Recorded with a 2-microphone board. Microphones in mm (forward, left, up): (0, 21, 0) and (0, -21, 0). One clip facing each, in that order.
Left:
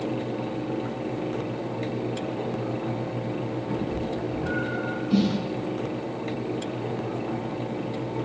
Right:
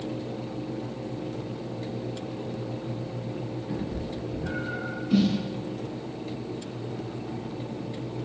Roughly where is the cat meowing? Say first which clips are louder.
Left 4 dB; left.